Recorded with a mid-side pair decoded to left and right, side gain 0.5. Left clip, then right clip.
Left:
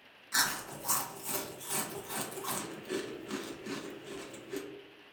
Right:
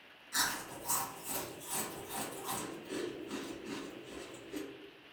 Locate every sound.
0.3 s chewing: 50° left, 0.7 m